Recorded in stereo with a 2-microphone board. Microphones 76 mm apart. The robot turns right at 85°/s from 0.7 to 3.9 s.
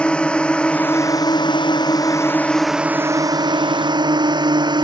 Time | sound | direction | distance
0.0 | a drone | 15° left | ?